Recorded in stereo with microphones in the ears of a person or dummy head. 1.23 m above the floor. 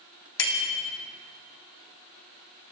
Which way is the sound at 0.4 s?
70° left (ahead or behind).